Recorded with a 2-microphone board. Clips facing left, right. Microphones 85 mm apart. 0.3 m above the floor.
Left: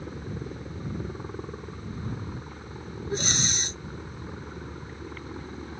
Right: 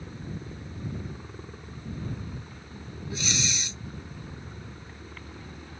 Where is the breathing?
40° left (ahead or behind).